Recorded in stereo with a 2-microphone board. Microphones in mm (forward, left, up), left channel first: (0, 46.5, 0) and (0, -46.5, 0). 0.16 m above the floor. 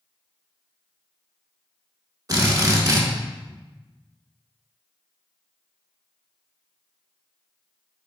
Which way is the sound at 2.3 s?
40° right (ahead or behind).